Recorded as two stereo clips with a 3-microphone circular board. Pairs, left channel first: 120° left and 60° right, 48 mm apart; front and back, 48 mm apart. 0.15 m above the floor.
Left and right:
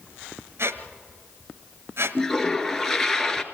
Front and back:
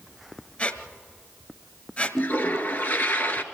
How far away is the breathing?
I don't hear breathing.